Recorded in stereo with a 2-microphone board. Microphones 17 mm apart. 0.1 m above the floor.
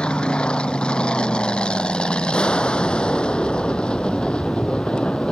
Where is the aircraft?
70° left (ahead or behind); by 5.3 s 65° left (ahead or behind).